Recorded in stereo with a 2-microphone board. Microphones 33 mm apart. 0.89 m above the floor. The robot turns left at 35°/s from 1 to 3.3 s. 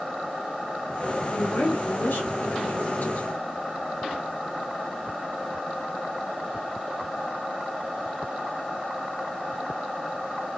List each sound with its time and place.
1.3 s a woman speaking: 120° left, 3.5 m; by 3.3 s 55° left, 3.5 m